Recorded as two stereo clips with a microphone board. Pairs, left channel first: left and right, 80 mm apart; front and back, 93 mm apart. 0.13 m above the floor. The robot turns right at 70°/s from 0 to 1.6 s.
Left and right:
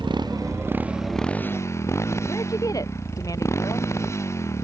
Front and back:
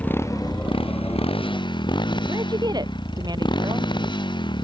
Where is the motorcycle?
80° right; by 4.7 s 35° left.